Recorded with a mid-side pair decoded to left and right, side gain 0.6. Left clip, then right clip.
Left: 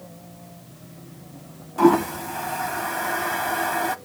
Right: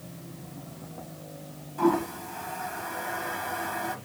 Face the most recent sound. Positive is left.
turn(degrees=45)